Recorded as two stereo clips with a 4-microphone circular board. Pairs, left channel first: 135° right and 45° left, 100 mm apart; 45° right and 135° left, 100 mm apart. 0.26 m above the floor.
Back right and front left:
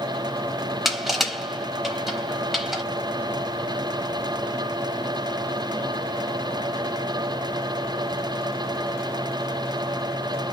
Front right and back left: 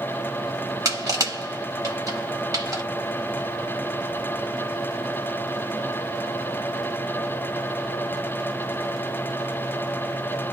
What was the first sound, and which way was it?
Crushing, 130° left.